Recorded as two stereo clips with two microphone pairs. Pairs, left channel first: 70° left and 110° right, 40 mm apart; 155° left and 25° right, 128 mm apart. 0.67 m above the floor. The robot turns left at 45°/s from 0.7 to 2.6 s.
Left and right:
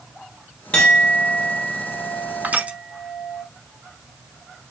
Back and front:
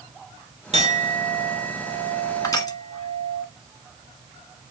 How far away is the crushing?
About 0.8 m.